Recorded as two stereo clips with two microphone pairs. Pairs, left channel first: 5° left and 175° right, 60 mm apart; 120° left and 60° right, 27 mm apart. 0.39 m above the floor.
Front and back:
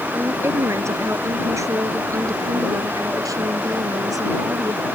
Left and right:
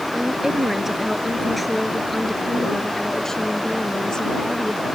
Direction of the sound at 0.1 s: 130° right.